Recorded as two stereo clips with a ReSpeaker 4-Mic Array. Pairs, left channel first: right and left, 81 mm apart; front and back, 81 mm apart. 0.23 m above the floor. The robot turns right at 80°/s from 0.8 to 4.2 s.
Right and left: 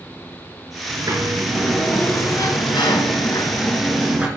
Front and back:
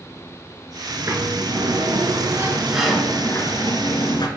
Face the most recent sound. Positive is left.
turn(degrees=15)